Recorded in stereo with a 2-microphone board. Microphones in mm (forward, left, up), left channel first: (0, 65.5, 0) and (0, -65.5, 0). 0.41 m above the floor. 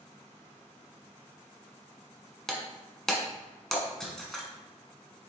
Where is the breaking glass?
5° left (ahead or behind), 1.3 m.